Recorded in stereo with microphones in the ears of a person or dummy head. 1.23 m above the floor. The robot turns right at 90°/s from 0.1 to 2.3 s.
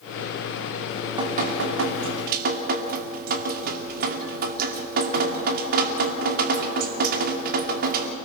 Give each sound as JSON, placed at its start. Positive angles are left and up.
{"t": 0.9, "sound": "dripping", "azimuth_deg": 180, "distance_m": 2.5}